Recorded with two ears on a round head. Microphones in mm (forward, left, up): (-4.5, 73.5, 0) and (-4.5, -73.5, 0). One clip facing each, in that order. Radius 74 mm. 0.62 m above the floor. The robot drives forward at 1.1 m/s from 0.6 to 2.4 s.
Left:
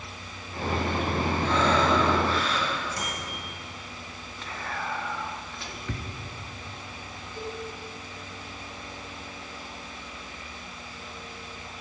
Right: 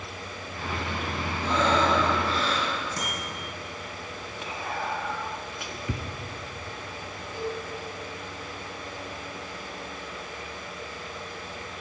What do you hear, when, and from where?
1.4 s breathing: 20° right (ahead or behind), 3.5 m; by 2.7 s 30° right (ahead or behind), 2.5 m
3.0 s a bicycle bell: 35° right (ahead or behind), 5 m
4.4 s whispering: 10° right (ahead or behind), 0.6 m
7.3 s a cowbell: 15° right (ahead or behind), 3.5 m